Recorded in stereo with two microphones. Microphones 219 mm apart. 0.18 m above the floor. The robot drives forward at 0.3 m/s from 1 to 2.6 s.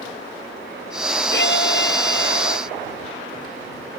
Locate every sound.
1.3 s a violin: 55° left (ahead or behind); by 2.7 s 60° left (ahead or behind)